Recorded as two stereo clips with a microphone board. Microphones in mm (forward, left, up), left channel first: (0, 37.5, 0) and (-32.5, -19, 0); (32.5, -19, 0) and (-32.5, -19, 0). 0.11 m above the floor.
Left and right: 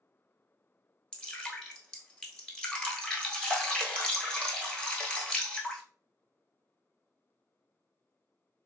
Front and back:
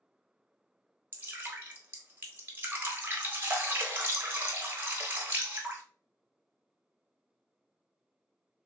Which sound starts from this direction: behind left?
Dripping, at 1.1 s.